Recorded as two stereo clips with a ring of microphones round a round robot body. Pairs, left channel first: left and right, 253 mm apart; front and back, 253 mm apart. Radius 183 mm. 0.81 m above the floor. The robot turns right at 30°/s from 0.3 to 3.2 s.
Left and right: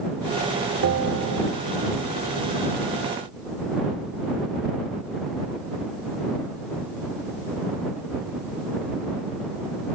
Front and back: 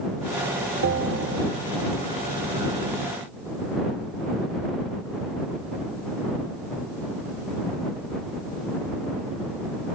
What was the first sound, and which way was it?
A bell, 135° right.